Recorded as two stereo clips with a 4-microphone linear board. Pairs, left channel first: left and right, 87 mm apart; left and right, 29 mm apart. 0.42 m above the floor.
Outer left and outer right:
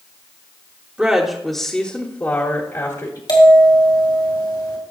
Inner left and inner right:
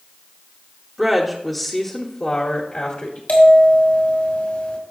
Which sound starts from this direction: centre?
A woman speaking, at 1.0 s.